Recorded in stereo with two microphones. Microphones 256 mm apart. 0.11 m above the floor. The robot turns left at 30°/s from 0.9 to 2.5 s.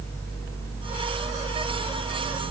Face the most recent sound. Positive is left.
No sound to turn to.